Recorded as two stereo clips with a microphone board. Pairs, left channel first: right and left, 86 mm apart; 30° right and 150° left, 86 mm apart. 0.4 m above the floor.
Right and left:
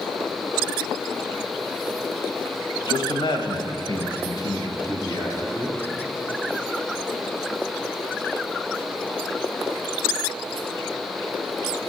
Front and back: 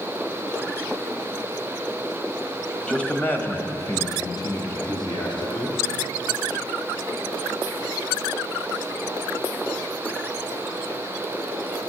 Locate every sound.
2.9 s a man speaking: 105° right, 1.7 m; by 5.8 s 35° right, 2.5 m